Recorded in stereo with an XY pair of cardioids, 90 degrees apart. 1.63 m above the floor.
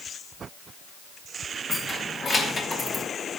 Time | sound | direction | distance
1.7 | keys jangling | 45° left | 2 m